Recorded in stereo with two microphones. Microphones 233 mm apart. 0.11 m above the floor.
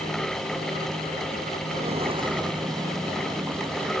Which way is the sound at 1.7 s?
30° right (ahead or behind).